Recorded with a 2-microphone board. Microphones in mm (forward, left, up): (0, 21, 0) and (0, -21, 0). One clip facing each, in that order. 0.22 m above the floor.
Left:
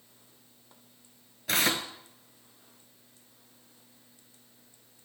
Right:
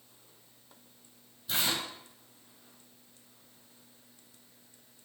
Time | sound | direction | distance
1.5 | tearing paper | 70° left (ahead or behind) | 0.8 m